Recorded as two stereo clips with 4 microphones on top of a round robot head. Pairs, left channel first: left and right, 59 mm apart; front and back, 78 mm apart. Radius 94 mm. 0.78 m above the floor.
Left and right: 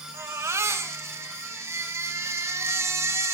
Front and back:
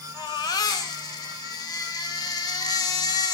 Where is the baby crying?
45° right, 3 m.